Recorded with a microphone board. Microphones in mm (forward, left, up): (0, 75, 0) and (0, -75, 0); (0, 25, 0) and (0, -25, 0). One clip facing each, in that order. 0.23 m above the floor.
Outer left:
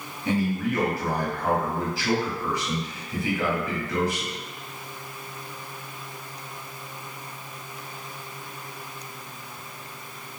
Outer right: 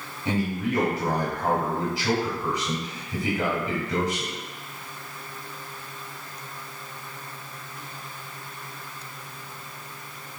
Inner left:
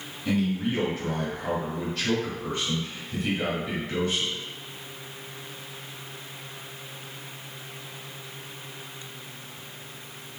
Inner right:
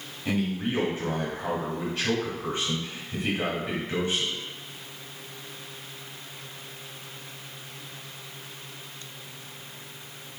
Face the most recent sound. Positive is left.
turn(degrees=-20)  # may be behind; listen again after turning